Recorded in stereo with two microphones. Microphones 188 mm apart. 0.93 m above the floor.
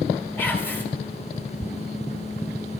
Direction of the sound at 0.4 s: 5° right (ahead or behind).